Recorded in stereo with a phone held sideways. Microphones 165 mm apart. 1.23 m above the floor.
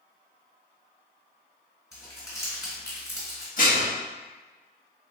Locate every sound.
1.9 s crumpling: 15° left (ahead or behind), 2.0 m
3.6 s dishes clattering: 55° left (ahead or behind), 1.0 m